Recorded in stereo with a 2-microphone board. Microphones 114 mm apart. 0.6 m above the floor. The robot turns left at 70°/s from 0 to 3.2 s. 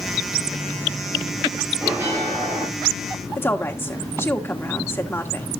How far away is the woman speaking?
About 1.4 m.